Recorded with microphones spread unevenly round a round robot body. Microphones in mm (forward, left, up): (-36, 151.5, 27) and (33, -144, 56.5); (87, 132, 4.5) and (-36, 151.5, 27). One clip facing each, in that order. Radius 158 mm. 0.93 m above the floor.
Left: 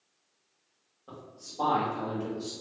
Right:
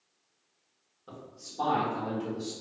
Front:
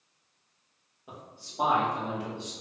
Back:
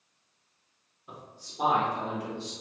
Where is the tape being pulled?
No tape being pulled in this recording.